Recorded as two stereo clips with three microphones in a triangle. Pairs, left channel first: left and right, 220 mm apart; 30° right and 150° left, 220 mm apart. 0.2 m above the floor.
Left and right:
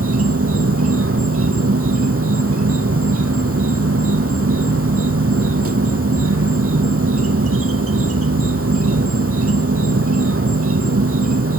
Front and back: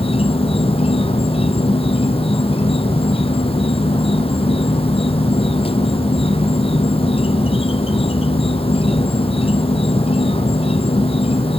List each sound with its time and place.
0.0 s an insect: 95° right, 0.8 m